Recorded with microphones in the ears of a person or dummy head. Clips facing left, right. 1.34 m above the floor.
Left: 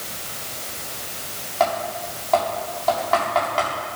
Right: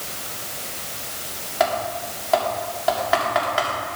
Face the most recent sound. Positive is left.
turn(degrees=-15)  # may be behind; listen again after turning